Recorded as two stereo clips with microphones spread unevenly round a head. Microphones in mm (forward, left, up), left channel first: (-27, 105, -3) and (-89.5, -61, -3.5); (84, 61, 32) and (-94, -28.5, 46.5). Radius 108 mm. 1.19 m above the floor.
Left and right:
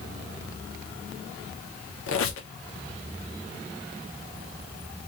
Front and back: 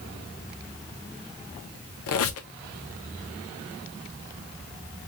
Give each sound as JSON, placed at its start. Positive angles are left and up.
{"t": 2.1, "sound": "a squeak", "azimuth_deg": 40, "distance_m": 0.5}